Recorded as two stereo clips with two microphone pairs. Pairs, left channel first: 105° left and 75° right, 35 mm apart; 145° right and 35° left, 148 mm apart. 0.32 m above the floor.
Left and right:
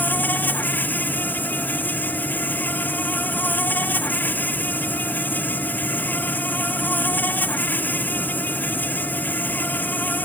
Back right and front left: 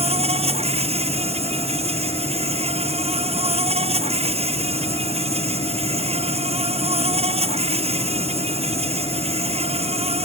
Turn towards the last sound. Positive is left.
turn(degrees=80)